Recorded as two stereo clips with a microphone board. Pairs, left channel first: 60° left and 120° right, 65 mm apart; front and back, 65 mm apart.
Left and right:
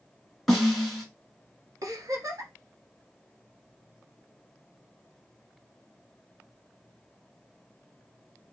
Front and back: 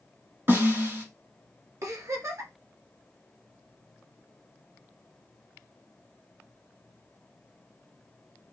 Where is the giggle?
145° right, 0.9 m.